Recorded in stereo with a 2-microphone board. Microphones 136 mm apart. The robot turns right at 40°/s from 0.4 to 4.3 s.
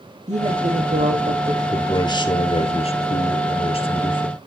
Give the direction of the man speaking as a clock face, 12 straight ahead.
11 o'clock.